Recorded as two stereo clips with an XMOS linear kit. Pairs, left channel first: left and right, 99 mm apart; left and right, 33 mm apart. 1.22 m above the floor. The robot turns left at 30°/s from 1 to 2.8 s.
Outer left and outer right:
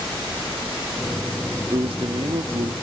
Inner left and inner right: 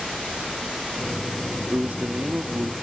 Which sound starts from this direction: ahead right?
A man speaking, at 1.7 s.